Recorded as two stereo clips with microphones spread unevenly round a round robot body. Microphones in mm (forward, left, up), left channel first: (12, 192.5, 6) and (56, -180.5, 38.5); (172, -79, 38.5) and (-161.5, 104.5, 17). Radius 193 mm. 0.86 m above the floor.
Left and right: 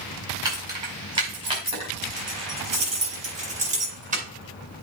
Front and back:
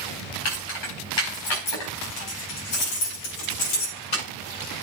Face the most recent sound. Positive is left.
turn(degrees=-10)